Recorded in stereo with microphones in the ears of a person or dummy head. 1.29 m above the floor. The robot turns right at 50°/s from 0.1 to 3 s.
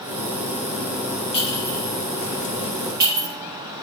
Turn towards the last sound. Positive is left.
turn(degrees=-50)  # may be behind; listen again after turning